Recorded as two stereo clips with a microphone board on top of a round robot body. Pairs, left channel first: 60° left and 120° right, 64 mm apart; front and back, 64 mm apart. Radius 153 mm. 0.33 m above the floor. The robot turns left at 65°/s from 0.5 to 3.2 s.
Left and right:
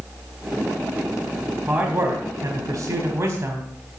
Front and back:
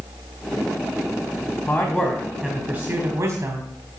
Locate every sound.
1.7 s a man speaking: 70° right, 1.7 m; by 3.7 s 170° right, 1.7 m